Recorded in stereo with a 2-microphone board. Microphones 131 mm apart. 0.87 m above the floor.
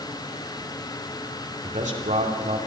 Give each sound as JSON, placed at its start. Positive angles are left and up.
{"t": 1.6, "sound": "a man speaking", "side_deg": -65, "distance_m": 2.5}